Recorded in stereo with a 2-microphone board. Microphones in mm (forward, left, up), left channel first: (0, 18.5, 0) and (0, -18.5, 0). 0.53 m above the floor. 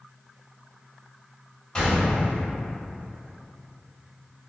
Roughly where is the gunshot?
Left.